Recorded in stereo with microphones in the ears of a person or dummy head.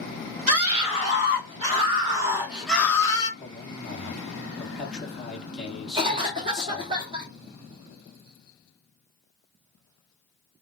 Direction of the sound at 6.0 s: 25° right (ahead or behind).